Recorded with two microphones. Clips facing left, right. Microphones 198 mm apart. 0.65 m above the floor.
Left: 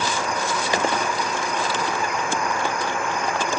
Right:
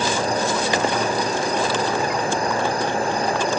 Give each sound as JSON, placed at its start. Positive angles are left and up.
{"t": 0.0, "sound": "an insect", "side_deg": -35, "distance_m": 0.9}